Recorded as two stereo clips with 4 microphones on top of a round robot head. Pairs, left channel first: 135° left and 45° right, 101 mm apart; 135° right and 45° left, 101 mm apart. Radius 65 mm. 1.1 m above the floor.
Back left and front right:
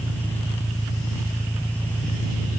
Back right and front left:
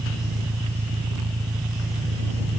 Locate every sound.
0.0 s an engine running: 55° left